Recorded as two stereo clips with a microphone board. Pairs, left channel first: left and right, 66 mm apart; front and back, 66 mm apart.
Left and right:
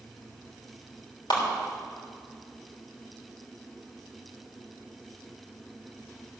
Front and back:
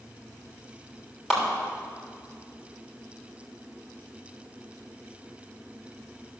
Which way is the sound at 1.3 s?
95° left.